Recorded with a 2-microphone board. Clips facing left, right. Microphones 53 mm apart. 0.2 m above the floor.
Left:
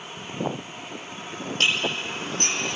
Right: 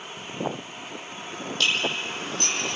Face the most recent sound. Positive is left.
turn(degrees=40)  # may be behind; listen again after turning